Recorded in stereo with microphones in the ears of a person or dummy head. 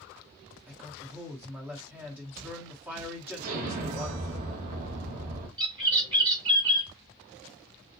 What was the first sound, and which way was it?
A man speaking, 10° right (ahead or behind).